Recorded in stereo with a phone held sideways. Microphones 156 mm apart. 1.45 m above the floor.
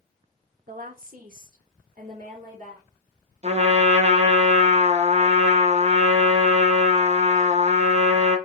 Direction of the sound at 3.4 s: 45° right (ahead or behind).